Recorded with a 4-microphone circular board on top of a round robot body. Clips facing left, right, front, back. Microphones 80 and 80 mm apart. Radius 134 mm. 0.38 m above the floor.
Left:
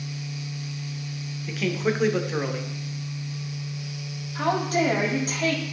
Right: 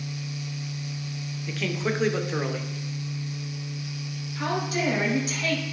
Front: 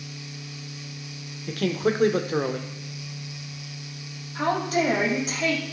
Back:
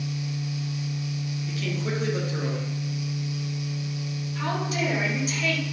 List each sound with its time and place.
1.5 s a man speaking: straight ahead, 1.3 m
4.3 s a woman speaking: 45° left, 3 m